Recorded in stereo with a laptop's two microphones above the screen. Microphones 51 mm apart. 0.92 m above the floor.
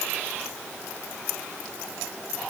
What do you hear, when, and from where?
Only background noise.